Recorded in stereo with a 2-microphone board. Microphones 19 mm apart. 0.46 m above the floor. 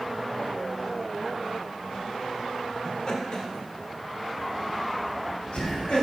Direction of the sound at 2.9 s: 35° left (ahead or behind).